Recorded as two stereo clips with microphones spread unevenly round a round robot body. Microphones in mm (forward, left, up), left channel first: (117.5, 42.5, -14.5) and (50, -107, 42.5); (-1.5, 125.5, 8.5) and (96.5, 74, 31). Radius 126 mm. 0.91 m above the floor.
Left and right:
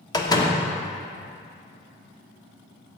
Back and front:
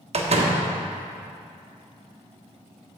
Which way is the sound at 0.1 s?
Straight ahead.